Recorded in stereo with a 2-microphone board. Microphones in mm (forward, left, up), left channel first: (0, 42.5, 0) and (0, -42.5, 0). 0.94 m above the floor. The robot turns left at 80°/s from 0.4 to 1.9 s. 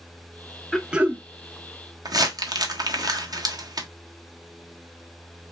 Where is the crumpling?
50° right (ahead or behind), 1.1 m.